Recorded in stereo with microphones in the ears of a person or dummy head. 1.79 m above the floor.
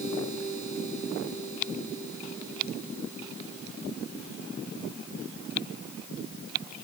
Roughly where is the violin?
No violin in this recording.